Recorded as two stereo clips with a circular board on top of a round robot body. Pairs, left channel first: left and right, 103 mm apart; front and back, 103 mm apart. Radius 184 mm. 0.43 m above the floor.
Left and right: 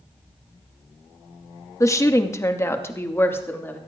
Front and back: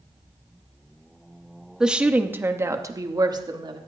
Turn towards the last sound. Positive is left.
turn(degrees=155)